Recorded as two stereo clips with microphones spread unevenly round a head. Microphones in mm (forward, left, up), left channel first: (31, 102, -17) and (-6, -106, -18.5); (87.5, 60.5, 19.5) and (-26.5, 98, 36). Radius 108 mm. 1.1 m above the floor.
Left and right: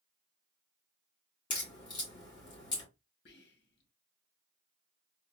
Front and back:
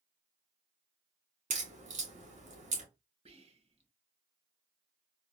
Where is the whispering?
125° left, 1.2 m.